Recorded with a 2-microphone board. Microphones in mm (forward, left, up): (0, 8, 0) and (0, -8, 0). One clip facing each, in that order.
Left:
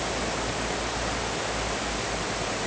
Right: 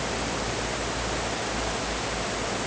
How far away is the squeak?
I don't hear a squeak.